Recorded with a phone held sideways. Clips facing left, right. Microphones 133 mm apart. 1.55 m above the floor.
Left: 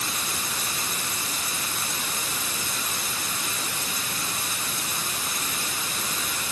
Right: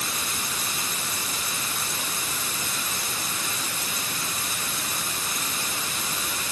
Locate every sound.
Only background noise.